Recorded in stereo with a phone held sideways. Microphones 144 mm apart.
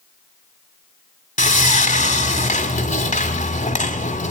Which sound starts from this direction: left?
Sawing, at 1.4 s.